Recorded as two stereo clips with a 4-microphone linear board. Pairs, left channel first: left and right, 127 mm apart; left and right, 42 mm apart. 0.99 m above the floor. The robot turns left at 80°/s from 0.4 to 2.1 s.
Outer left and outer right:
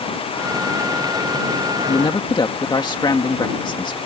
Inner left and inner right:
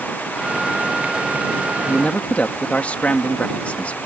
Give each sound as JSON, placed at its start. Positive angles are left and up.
{"t": 1.9, "sound": "a man speaking", "side_deg": 50}